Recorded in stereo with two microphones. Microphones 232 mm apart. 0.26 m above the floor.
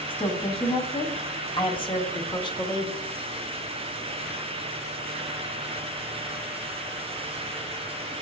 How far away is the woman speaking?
About 2.0 m.